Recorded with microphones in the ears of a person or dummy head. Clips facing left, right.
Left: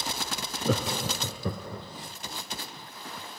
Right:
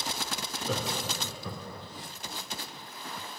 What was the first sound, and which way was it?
Laughter, 45° left (ahead or behind).